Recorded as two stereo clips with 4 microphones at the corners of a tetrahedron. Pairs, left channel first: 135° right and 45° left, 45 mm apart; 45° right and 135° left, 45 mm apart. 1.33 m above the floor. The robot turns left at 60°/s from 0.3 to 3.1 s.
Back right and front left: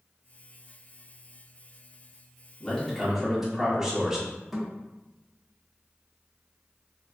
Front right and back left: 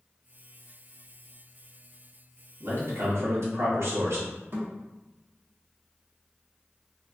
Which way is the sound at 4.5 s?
130° left.